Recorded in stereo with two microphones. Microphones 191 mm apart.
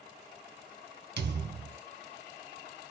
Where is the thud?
65° right (ahead or behind), 1.4 m.